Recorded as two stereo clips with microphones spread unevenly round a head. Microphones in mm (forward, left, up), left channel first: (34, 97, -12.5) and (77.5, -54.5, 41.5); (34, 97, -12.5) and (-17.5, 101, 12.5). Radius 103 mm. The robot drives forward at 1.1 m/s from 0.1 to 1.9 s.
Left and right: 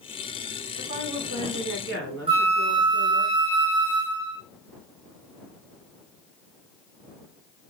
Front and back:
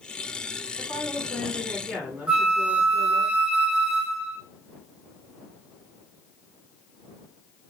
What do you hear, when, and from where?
0.8 s a woman speaking: 60° right, 2 m; by 3.3 s 95° right, 1.9 m
2.3 s a flute: 125° right, 0.5 m